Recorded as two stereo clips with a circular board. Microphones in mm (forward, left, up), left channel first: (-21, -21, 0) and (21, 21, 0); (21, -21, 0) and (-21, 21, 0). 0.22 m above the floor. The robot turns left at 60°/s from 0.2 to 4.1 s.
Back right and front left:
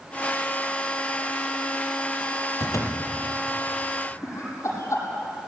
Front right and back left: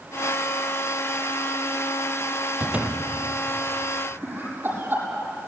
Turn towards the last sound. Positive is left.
turn(degrees=-170)